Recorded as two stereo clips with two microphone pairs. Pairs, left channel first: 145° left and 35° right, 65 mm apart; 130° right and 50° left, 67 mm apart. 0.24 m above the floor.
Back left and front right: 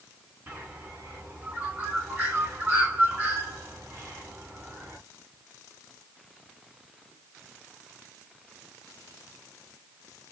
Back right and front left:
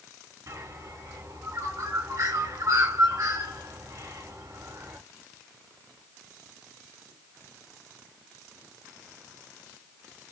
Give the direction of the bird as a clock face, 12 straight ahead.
11 o'clock.